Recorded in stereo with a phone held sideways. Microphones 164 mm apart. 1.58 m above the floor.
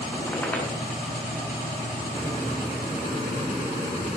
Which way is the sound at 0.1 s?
10° left (ahead or behind).